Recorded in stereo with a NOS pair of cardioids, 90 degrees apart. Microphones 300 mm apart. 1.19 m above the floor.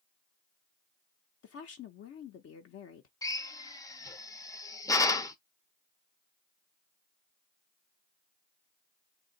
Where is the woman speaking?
55° left, 0.7 m.